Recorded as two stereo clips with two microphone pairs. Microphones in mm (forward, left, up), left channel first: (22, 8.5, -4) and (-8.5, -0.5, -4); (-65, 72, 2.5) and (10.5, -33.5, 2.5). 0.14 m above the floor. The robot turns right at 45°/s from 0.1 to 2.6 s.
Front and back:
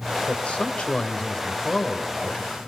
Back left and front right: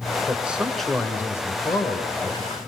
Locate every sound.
0.3 s a man speaking: 15° left, 1.8 m; by 2.6 s 120° left, 1.8 m